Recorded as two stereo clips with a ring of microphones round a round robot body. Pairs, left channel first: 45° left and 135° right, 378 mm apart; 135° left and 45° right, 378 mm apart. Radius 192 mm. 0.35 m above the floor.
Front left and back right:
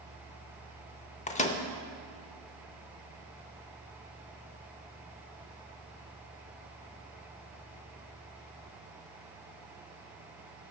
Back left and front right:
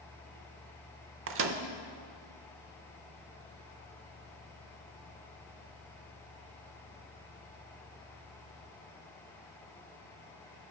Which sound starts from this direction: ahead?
A microwave, at 1.3 s.